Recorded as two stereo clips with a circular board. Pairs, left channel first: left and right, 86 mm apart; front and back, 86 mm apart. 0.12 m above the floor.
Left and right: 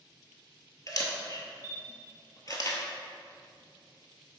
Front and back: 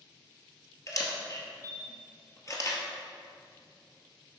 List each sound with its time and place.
0.9 s a camera shutter: 50° left, 1.1 m